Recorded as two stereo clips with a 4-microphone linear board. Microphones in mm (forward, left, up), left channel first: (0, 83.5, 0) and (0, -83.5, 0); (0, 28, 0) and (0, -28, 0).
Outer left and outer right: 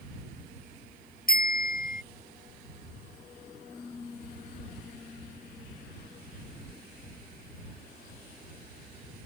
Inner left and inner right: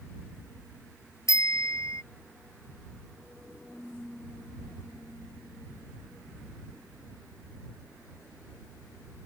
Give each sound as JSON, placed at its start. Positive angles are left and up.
{"t": 1.3, "sound": "a bicycle bell", "side_deg": 65}